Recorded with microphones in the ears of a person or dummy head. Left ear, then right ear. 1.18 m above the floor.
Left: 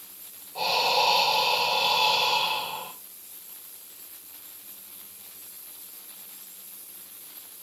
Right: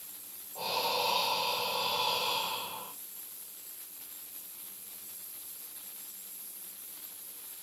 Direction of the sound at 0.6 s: 70° left (ahead or behind).